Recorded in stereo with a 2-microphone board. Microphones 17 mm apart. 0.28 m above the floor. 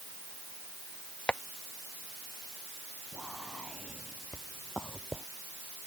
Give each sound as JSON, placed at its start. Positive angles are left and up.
{"t": 1.3, "sound": "tapping", "side_deg": 75}
{"t": 3.1, "sound": "whispering", "side_deg": -5}